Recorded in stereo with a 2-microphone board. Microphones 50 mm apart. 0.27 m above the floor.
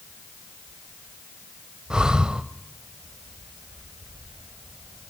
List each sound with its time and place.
1.9 s breathing: 15° right (ahead or behind), 0.7 m